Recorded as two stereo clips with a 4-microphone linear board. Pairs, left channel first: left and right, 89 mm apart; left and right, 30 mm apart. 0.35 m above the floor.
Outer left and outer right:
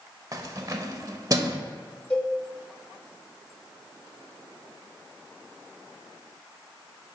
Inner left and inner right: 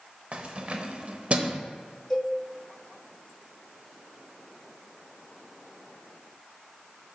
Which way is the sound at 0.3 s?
45° right (ahead or behind).